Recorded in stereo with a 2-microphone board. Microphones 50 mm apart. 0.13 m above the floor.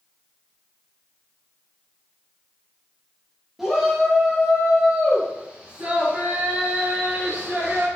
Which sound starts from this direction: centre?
A shout, at 3.6 s.